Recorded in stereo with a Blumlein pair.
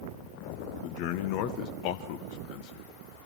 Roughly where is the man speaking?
Ahead left.